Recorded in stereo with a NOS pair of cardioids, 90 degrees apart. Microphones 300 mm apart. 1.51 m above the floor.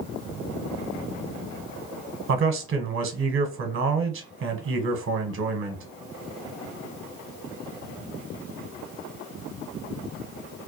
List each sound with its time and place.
2.3 s a man speaking: 45° right, 0.8 m